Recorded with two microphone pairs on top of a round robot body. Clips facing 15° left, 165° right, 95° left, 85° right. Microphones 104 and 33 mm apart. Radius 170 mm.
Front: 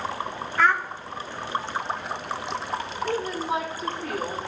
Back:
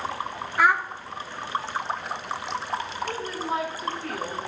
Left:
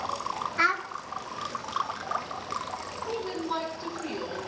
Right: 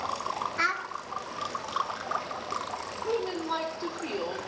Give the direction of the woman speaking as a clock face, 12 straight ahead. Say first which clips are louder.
Front 6 dB, right 2 dB; 2 o'clock.